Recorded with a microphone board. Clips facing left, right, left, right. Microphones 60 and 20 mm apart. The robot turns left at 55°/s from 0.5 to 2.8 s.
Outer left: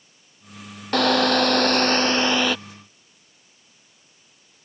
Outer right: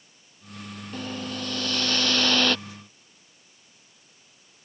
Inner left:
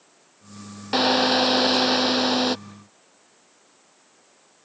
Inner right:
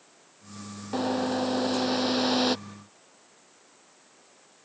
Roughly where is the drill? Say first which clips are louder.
Outer left 16 dB, inner left 8 dB; left.